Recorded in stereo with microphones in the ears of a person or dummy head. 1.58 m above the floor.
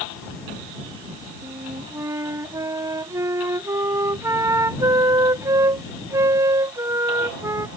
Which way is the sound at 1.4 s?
15° right (ahead or behind).